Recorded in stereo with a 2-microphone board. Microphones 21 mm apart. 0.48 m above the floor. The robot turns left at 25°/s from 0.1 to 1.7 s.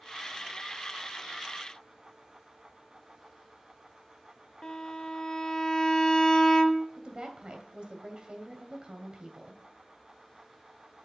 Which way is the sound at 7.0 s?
40° right (ahead or behind).